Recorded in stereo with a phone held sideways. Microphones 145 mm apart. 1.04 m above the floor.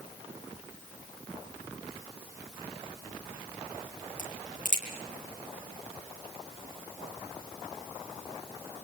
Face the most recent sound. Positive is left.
turn(degrees=55)  # may be behind; listen again after turning